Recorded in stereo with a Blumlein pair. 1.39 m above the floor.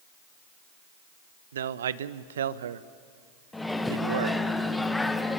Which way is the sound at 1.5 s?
65° right.